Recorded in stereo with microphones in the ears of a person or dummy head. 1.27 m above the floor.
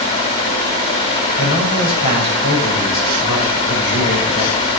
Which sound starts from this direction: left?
A man speaking, at 1.4 s.